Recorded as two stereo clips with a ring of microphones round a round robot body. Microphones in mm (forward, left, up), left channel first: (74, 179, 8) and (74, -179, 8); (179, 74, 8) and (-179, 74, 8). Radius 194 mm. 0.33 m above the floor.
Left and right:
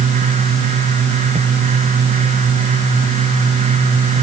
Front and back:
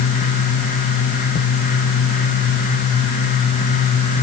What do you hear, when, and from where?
Only background noise.